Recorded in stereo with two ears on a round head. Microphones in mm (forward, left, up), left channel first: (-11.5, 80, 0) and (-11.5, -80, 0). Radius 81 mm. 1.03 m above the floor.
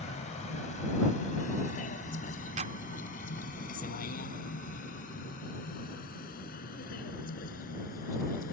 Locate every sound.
0.0 s a vehicle: 40° left (ahead or behind); by 8.5 s 55° left (ahead or behind)
2.6 s a clap: 45° right (ahead or behind)